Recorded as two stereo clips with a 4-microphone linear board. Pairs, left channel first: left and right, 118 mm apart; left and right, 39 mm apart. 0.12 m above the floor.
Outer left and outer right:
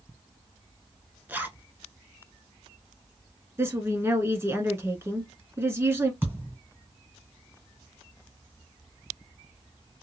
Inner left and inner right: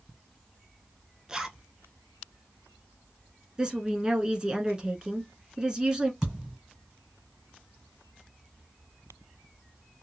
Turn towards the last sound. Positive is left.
turn(degrees=-15)  # may be behind; listen again after turning